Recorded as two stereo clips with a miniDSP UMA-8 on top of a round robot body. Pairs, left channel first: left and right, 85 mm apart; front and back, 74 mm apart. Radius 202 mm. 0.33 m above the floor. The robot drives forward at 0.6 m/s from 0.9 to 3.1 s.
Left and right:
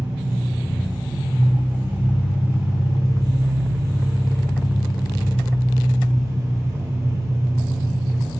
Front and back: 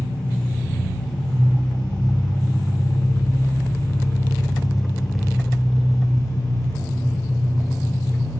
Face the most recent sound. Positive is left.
turn(degrees=-35)